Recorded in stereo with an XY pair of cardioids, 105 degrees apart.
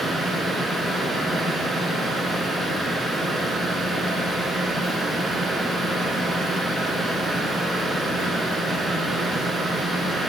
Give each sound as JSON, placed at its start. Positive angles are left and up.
{"t": 0.0, "sound": "a fan", "azimuth_deg": -20, "distance_m": 1.7}